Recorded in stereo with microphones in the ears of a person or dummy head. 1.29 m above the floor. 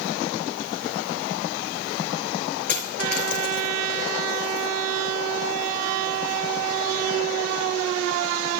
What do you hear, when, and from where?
2.7 s a dropped coin: 10° left (ahead or behind), 5 m